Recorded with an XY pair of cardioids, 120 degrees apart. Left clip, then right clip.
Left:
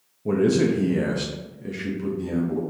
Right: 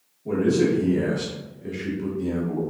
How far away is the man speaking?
About 1.0 m.